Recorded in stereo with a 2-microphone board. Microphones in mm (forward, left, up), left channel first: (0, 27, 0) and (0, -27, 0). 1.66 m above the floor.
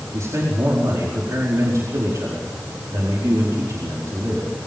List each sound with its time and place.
0.1 s a man speaking: 70° right (ahead or behind), 4.5 m